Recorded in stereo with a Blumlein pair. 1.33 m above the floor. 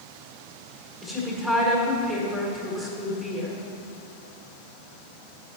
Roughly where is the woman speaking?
Ahead.